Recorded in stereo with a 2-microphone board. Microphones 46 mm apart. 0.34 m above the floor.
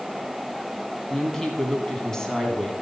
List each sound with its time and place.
1.1 s a woman speaking: 15° left (ahead or behind), 2.5 m